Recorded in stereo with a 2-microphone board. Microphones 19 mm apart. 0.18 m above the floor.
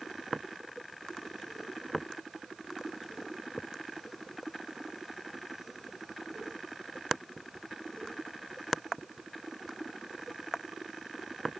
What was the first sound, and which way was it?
Only background noise.